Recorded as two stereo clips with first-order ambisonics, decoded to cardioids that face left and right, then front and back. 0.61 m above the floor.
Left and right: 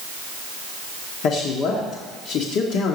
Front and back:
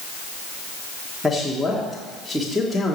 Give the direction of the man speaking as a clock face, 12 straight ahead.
9 o'clock.